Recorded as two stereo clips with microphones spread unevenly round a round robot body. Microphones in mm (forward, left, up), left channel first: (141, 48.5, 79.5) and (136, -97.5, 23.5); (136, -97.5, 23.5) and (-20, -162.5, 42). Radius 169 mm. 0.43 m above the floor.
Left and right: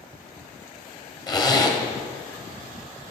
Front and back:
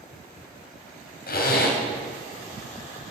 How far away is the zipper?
About 2.5 m.